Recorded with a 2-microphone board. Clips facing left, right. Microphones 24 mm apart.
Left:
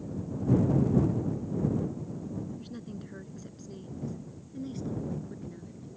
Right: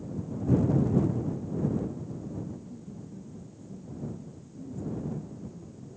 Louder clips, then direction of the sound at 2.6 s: Left 2 dB; 80° left.